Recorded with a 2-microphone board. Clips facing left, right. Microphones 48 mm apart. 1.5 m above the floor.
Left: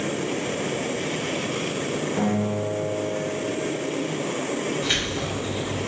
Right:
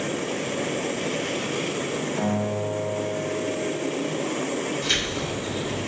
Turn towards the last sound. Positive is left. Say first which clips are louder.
# even
turn(degrees=15)  # may be behind; listen again after turning